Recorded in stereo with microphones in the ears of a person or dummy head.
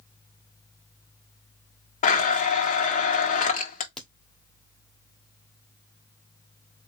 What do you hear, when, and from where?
2.0 s a blender: 40° left (ahead or behind), 0.8 m
4.0 s a crack: centre (ahead or behind), 1.1 m